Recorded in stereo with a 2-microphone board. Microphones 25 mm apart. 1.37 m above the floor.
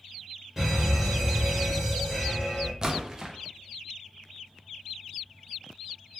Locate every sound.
0.6 s an alarm: 15° right (ahead or behind), 1.4 m
2.8 s a splash: 25° right (ahead or behind), 0.6 m